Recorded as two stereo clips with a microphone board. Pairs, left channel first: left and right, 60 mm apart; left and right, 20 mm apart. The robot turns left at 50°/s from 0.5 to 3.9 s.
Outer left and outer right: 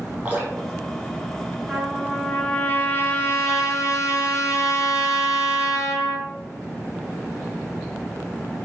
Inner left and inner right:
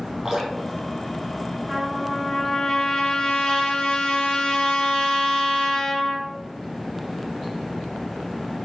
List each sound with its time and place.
0.2 s dripping: 30° right (ahead or behind), 4.5 m; by 2.1 s 45° left (ahead or behind), 4.5 m
1.7 s a trumpet: 165° right, 2.5 m; by 6.3 s 85° left, 2.5 m